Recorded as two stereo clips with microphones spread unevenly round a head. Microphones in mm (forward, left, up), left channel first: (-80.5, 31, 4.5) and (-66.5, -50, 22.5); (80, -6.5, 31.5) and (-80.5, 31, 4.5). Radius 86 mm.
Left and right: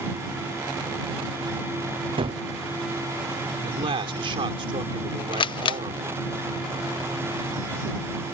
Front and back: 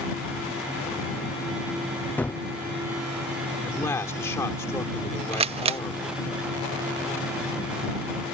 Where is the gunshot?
95° right.